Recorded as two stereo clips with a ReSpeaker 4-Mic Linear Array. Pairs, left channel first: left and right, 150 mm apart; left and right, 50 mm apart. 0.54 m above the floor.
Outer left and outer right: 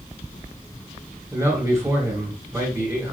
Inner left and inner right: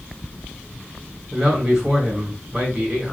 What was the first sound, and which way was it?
A man speaking, 20° right (ahead or behind).